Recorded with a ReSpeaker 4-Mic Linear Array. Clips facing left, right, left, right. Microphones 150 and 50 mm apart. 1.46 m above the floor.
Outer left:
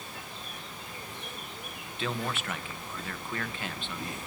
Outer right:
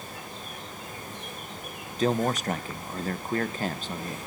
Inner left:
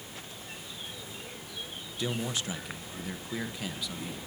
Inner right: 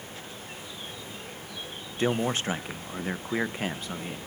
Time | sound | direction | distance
2.0 | a man speaking | 40° right (ahead or behind) | 1.0 m